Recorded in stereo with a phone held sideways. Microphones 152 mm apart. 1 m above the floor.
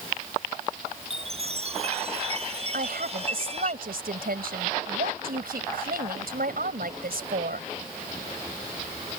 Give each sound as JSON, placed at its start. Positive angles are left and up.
{"t": 1.0, "sound": "a chime", "side_deg": -40}
{"t": 2.7, "sound": "a woman speaking", "side_deg": -80}